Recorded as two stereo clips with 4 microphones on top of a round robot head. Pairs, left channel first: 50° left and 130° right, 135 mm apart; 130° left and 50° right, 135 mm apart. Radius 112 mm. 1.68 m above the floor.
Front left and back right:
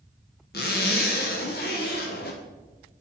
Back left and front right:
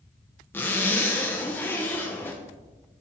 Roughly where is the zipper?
Ahead left.